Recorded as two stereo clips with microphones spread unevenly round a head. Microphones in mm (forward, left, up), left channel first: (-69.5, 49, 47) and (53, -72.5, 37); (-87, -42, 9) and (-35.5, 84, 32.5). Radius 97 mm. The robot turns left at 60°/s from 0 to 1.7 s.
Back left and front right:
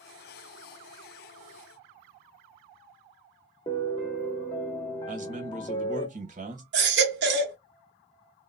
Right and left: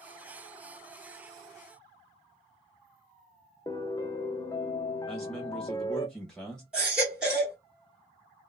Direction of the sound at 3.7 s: 175° right.